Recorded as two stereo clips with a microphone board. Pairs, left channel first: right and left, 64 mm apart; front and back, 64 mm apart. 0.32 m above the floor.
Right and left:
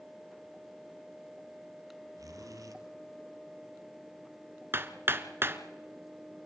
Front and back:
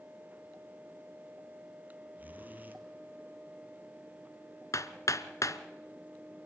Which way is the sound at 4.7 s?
35° left.